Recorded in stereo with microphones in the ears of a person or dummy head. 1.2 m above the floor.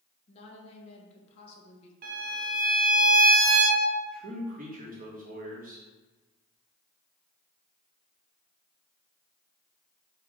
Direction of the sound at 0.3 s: 40° left (ahead or behind).